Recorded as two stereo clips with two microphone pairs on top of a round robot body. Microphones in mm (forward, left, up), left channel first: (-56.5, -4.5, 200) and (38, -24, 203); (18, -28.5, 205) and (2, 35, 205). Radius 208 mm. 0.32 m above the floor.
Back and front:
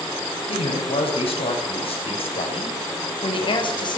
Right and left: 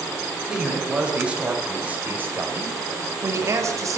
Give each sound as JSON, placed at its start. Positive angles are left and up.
{"t": 0.5, "sound": "a man speaking", "azimuth_deg": -175, "distance_m": 3.0}